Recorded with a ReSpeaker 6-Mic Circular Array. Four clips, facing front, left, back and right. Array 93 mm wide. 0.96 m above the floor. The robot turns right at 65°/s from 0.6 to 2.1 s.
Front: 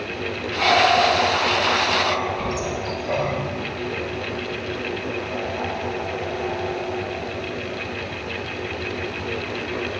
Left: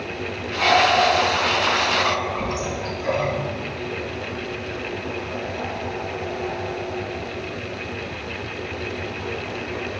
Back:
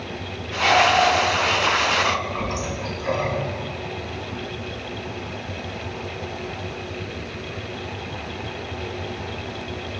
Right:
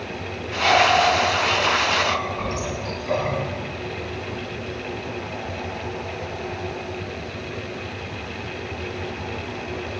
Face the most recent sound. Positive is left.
turn(degrees=135)